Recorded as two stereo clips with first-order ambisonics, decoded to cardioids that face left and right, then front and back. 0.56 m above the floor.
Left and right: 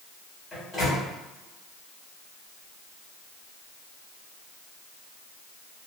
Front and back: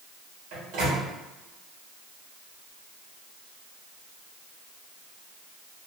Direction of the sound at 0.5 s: 175° left.